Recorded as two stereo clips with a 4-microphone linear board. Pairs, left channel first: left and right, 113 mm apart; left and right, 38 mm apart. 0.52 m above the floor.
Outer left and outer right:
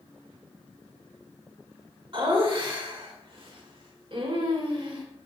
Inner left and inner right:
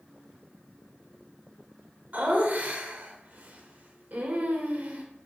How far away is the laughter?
About 2 m.